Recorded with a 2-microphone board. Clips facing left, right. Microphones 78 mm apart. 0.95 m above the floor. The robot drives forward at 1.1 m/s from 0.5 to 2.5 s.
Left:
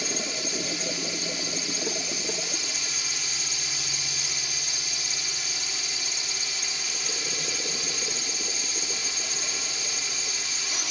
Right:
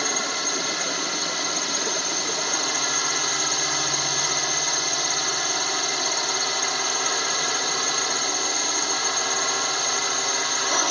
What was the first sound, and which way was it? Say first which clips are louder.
A drone: right 5 dB; 65° right (ahead or behind).